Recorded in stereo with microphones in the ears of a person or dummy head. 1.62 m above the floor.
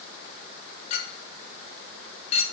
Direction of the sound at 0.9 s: 35° left (ahead or behind).